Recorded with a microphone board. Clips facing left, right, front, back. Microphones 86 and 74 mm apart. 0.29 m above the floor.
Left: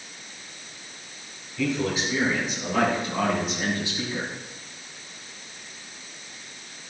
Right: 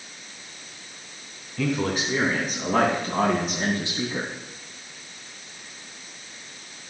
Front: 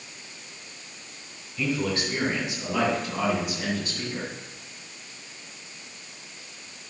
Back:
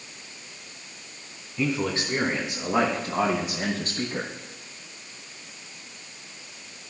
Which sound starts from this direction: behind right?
A man speaking, at 1.6 s.